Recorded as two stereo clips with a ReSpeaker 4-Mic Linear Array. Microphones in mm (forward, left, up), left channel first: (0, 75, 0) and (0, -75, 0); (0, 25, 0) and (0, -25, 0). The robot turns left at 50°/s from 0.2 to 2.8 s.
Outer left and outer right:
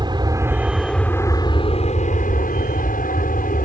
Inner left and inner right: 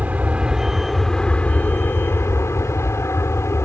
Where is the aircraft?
150° right; by 3.7 s 80° left.